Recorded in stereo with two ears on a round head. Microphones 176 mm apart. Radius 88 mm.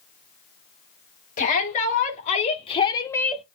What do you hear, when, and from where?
1.4 s a shout: 40° left (ahead or behind), 3.5 m; by 3.5 s 5° right (ahead or behind), 0.9 m